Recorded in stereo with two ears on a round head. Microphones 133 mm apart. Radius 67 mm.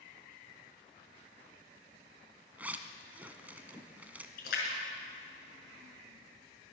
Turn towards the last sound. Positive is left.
turn(degrees=75)  # may be behind; listen again after turning